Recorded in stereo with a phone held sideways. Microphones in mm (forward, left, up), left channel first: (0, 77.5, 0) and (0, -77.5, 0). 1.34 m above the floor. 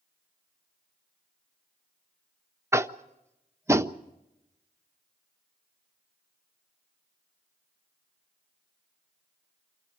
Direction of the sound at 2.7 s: 20° right (ahead or behind).